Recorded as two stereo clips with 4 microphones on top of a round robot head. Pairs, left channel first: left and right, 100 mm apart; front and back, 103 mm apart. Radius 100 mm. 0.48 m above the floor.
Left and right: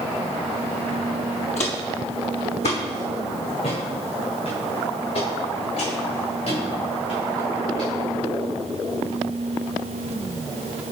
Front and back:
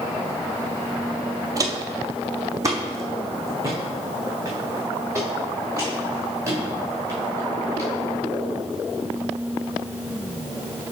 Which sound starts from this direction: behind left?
Footsteps, at 1.6 s.